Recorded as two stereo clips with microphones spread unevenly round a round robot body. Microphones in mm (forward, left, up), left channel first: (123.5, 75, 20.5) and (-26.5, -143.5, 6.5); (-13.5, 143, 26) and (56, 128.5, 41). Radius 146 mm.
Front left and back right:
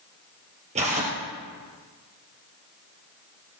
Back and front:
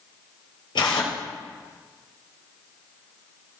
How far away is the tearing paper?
About 2.5 m.